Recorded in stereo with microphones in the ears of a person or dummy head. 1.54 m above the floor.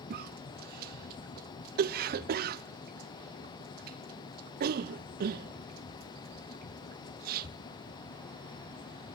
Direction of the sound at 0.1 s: 60° right (ahead or behind).